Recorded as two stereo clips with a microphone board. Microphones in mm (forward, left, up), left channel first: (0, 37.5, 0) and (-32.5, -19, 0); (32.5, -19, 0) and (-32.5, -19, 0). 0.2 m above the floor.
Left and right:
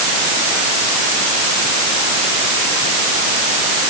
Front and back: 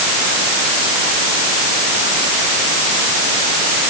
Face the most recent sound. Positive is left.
No sound to turn to.